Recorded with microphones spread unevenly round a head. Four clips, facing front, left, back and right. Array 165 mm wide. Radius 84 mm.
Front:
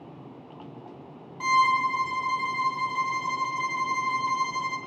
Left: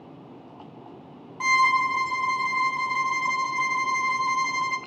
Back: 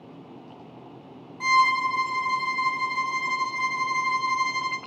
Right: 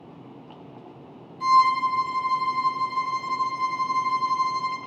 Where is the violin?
80° left, 1.3 m.